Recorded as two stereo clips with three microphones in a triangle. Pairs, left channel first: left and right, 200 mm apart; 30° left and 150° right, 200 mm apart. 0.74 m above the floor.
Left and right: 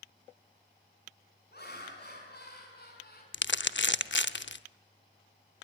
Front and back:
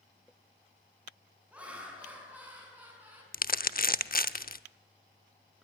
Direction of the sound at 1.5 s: 125° left.